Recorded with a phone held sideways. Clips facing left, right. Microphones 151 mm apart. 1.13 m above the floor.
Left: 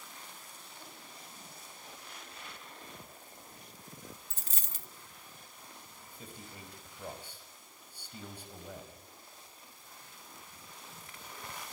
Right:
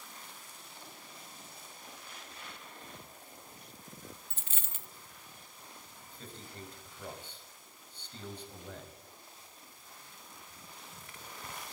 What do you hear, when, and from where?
4.3 s a dropped coin: 40° left (ahead or behind), 0.5 m
6.1 s a man speaking: 10° left (ahead or behind), 6 m